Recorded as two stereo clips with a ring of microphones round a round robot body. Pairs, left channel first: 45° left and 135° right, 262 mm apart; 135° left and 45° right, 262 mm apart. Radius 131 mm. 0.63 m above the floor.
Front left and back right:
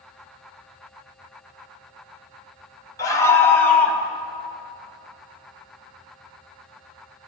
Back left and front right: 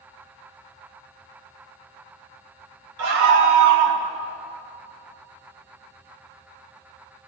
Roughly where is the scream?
Ahead right.